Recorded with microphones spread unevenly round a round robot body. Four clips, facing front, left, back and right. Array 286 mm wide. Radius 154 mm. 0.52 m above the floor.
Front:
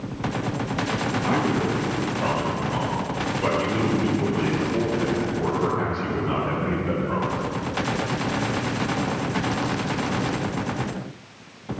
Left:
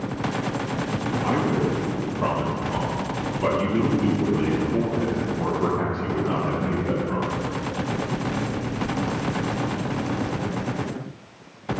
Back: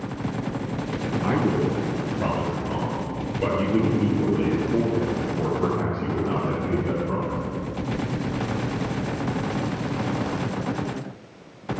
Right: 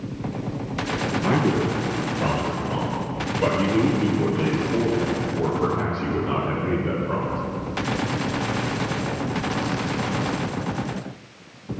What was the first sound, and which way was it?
A man speaking, 130° right.